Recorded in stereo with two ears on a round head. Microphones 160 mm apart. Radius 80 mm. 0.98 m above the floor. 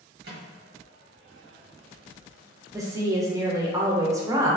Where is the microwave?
60° right (ahead or behind), 1.4 m.